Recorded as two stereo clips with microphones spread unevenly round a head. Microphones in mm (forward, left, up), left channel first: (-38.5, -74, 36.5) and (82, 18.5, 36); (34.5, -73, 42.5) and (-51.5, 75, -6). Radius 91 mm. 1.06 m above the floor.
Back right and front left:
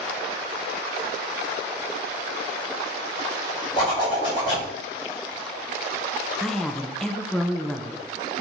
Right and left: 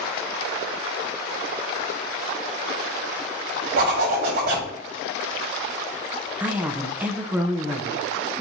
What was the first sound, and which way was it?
A zipper, 150° left.